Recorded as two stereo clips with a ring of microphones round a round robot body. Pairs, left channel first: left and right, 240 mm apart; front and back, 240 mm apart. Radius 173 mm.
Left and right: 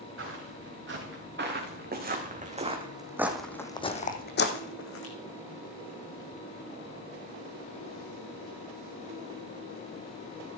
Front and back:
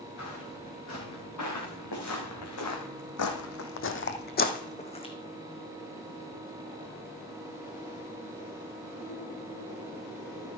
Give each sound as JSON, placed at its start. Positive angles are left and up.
{"t": 0.2, "sound": "footsteps", "azimuth_deg": -55, "distance_m": 4.0}